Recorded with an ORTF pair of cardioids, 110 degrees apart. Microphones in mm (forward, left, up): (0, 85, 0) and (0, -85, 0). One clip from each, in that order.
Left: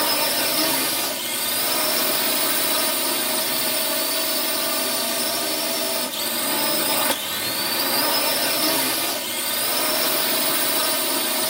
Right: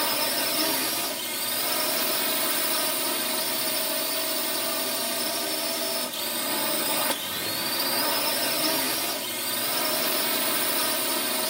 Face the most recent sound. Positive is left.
turn(degrees=25)